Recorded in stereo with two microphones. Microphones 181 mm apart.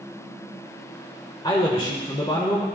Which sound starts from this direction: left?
A man speaking, at 1.4 s.